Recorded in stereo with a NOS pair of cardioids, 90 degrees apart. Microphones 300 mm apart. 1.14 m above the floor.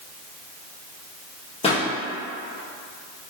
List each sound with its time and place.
1.6 s a pop: 20° left, 1.1 m